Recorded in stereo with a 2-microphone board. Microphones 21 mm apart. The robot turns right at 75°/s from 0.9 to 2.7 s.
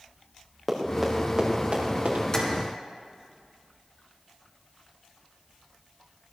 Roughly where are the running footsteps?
Centre.